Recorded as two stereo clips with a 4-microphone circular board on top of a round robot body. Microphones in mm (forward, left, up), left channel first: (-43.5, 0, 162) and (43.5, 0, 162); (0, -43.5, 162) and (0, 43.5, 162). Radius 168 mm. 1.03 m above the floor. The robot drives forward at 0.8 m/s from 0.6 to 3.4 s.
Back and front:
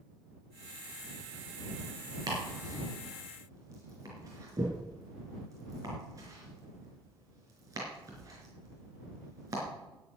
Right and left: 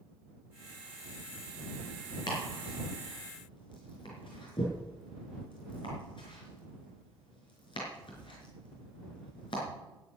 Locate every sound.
2.3 s chopping: 50° right, 5 m; by 9.6 s 55° right, 4.5 m